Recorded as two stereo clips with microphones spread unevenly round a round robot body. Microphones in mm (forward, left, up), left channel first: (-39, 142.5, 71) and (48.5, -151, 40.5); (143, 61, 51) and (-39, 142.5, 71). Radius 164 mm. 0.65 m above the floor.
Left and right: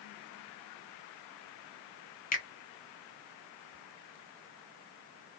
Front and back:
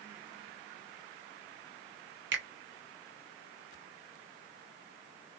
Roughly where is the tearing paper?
I don't hear tearing paper.